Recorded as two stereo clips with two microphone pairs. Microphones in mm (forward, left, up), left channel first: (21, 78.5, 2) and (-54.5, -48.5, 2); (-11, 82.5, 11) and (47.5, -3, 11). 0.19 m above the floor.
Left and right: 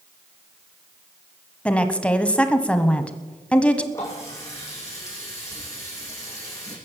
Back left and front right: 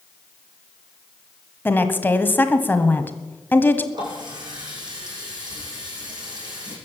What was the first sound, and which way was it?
A woman speaking, 125° left.